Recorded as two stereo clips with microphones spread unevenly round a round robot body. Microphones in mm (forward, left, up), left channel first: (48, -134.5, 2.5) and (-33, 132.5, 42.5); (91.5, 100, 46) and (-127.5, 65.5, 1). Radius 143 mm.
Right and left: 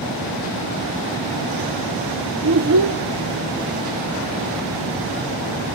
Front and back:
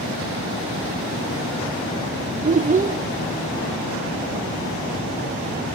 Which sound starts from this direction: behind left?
A child speaking, at 2.4 s.